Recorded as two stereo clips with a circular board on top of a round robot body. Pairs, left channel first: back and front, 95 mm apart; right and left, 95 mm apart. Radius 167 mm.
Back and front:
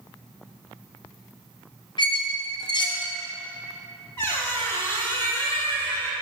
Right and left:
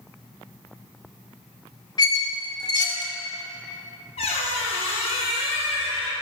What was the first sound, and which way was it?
A squeak, 140° right.